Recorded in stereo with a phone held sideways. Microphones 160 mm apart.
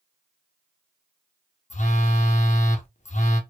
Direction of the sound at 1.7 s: 50° left (ahead or behind).